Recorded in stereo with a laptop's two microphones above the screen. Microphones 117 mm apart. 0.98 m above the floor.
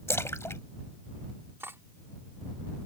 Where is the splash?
25° left (ahead or behind).